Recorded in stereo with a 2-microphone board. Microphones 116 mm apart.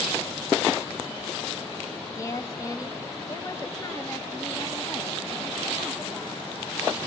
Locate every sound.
2.1 s a woman speaking: 25° left (ahead or behind), 1.3 m; by 7.0 s 10° left (ahead or behind), 2.5 m